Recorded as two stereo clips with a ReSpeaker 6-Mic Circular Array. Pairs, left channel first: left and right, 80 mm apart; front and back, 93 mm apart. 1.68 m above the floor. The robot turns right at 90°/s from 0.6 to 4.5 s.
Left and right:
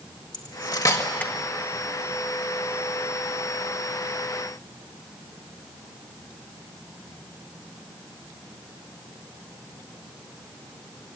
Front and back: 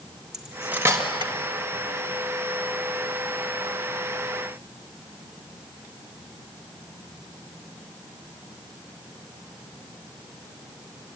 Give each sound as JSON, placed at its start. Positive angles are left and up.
{"t": 0.3, "sound": "cutlery clinking", "azimuth_deg": 100, "distance_m": 1.6}